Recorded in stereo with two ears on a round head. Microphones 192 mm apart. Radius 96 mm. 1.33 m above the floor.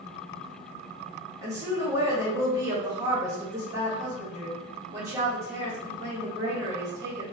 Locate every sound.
1.4 s a woman speaking: 15° right (ahead or behind), 1.1 m